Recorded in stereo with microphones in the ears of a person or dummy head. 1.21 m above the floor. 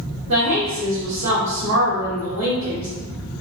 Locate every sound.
0.3 s a woman speaking: 50° right (ahead or behind), 1.4 m